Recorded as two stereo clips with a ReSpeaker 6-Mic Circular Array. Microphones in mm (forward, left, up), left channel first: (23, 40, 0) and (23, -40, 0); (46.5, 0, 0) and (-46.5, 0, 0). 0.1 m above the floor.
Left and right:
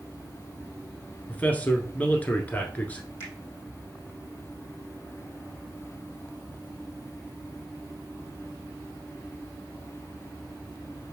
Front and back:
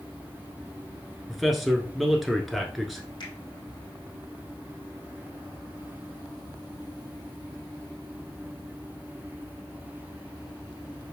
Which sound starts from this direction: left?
A man speaking, at 1.3 s.